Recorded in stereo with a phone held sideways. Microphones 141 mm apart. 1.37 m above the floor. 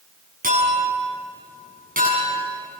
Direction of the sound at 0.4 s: 85° right.